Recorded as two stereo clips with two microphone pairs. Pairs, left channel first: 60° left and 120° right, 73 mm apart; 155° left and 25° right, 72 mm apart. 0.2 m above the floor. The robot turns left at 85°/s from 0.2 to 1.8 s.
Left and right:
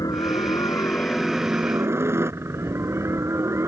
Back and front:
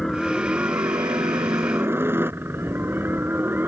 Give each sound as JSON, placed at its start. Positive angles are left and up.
{"t": 0.0, "sound": "a helicopter", "azimuth_deg": 70}